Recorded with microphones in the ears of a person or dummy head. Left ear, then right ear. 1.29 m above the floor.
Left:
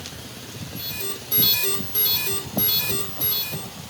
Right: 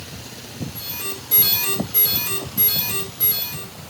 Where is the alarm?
25° right (ahead or behind), 4.5 m.